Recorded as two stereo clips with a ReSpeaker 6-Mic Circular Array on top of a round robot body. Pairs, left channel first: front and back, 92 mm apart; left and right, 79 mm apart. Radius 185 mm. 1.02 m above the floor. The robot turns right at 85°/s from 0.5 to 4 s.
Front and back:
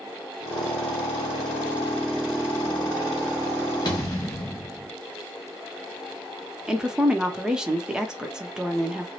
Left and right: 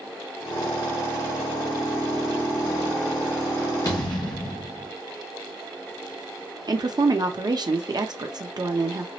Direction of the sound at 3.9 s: 45° left.